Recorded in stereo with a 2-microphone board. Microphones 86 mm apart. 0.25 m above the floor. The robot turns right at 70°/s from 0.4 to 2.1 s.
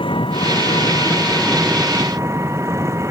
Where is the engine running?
95° left; by 3.1 s 145° right.